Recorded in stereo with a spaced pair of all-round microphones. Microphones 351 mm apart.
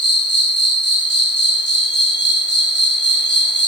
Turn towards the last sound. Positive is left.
turn(degrees=30)  # may be behind; listen again after turning